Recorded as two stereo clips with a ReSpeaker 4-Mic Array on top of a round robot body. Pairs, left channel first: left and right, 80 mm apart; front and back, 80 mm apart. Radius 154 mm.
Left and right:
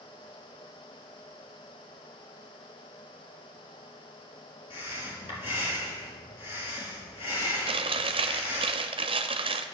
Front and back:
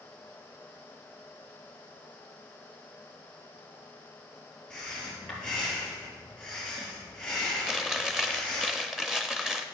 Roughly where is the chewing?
Right.